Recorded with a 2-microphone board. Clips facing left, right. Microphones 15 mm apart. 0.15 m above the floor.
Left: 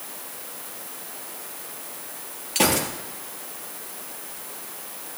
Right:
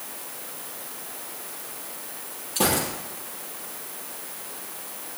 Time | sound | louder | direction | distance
2.5 | a gunshot | left 2 dB | 60° left (ahead or behind) | 4 m